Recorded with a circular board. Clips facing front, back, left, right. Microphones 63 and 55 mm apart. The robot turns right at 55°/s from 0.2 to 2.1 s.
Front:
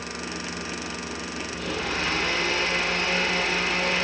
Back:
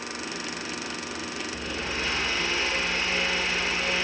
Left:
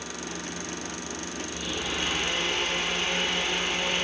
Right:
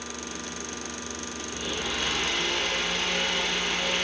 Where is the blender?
10° right, 7.5 m; by 4.0 s 25° left, 7.5 m.